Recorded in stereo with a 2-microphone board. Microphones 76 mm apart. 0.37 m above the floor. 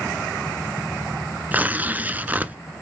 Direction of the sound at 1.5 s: 20° right (ahead or behind).